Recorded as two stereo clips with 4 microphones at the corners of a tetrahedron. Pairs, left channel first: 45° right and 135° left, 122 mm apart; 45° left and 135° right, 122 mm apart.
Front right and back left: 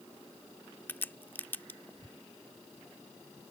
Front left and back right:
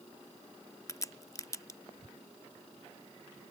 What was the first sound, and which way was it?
A crack, 10° left.